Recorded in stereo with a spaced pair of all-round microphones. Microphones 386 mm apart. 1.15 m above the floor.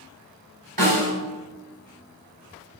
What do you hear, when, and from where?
0.8 s a snare drum: 85° right, 4.5 m